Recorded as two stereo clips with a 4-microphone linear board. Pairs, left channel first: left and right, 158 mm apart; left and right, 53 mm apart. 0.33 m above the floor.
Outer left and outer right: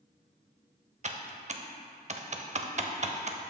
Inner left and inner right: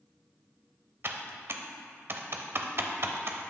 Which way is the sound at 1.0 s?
45° right (ahead or behind).